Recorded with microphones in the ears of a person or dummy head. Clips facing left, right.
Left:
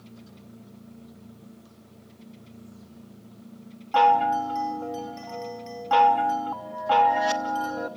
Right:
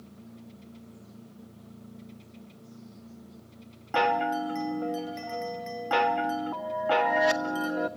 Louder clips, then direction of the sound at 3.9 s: Left 5 dB; 25° right (ahead or behind).